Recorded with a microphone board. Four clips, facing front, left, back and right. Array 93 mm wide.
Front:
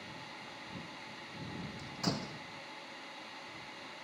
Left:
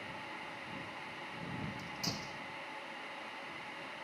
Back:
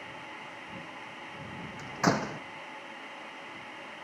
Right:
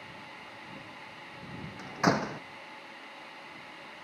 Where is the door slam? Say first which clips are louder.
Right 15 dB, back 11 dB; 125° right.